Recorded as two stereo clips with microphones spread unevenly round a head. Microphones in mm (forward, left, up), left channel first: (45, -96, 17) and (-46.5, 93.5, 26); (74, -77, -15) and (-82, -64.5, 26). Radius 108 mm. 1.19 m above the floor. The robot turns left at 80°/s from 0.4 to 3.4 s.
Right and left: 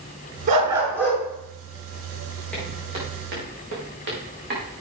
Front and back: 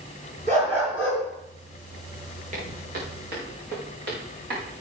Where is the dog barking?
60° left, 5.5 m; by 1.2 s straight ahead, 5.5 m.